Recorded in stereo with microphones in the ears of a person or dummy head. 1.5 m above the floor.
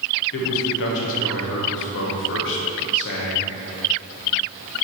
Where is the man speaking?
60° left (ahead or behind), 1.1 m.